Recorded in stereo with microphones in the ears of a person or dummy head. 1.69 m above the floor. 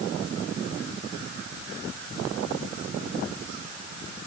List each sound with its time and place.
Only background noise.